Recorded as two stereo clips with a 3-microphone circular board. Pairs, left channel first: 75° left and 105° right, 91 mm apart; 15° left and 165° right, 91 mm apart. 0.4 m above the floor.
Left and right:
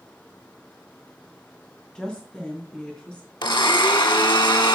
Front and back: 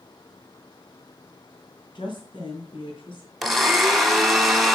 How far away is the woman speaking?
About 2.5 m.